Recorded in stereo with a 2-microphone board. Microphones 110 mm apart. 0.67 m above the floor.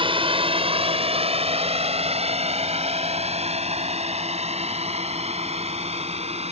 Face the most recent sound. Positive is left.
turn(degrees=-70)  # may be behind; listen again after turning